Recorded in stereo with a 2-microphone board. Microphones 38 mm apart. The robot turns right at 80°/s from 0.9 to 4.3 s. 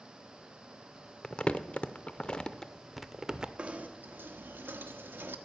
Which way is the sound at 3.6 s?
155° right.